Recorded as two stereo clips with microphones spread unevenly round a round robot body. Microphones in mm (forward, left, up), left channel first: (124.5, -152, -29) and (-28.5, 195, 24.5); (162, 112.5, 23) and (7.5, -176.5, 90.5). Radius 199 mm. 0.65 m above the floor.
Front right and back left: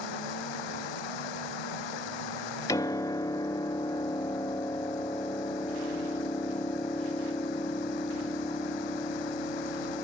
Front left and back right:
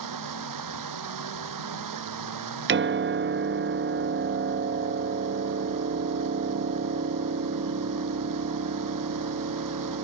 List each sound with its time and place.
0.0 s running water: 95° right
2.7 s a piano: 100° right